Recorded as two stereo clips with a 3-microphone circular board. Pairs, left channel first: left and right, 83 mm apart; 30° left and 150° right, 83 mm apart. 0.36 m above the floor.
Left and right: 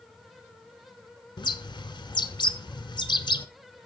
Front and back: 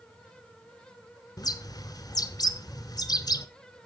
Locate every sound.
1.4 s a bird: 65° left, 0.7 m